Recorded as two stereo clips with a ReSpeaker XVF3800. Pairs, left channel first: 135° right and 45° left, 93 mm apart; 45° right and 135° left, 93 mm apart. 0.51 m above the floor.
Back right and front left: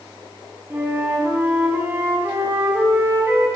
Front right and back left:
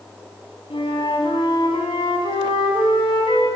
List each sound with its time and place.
0.7 s a flute: 20° right, 5 m